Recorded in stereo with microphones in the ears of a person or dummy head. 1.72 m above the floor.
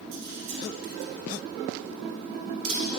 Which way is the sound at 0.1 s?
65° right (ahead or behind).